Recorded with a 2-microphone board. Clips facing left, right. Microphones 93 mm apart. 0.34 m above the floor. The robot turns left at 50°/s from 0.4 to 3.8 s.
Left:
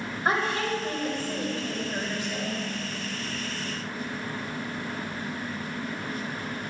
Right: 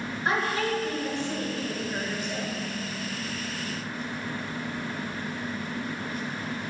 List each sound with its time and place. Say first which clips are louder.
0.2 s a woman speaking: left 1 dB; 30° left (ahead or behind), 1.3 m; by 2.6 s 15° right (ahead or behind), 1.3 m